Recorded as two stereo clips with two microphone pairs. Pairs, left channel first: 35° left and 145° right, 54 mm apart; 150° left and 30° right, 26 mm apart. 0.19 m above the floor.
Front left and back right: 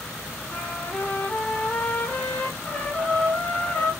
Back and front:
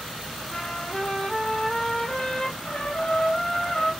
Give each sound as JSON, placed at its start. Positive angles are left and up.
{"t": 0.5, "sound": "a trumpet", "azimuth_deg": 100, "distance_m": 2.5}